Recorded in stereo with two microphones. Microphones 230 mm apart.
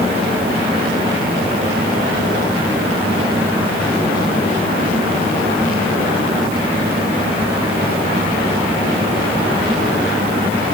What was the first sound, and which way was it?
Only background noise.